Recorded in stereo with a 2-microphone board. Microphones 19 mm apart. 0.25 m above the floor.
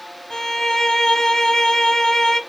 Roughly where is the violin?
Left.